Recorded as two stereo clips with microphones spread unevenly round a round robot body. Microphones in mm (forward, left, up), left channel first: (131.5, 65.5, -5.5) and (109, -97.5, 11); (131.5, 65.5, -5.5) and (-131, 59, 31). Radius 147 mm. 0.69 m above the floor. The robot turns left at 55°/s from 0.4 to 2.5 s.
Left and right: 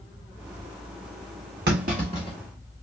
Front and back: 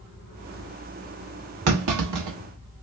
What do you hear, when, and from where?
1.7 s a clunk: 140° right, 0.8 m; by 2.4 s 175° right, 0.8 m